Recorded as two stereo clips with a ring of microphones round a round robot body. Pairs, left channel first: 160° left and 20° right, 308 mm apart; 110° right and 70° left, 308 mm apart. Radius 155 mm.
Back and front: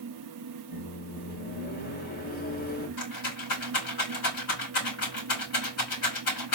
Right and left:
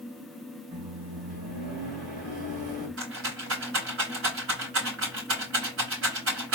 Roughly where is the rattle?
Behind left.